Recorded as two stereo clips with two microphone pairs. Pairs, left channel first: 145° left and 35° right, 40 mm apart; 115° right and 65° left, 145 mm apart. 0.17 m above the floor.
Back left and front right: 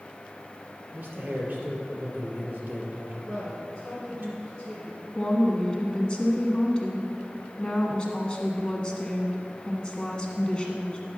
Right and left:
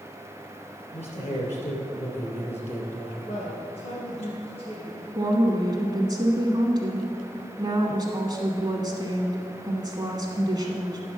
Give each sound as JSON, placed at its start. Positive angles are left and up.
{"t": 0.9, "sound": "a man speaking", "azimuth_deg": -80, "distance_m": 3.0}
{"t": 3.3, "sound": "a man speaking", "azimuth_deg": -135, "distance_m": 2.5}
{"t": 5.2, "sound": "a woman speaking", "azimuth_deg": 95, "distance_m": 1.4}